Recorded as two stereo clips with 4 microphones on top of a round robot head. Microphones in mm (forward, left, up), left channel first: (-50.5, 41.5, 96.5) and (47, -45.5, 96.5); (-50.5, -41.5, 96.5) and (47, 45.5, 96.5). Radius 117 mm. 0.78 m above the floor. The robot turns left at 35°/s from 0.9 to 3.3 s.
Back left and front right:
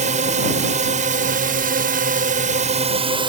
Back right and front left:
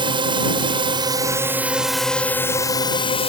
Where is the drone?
10° right; by 3.3 s 95° right.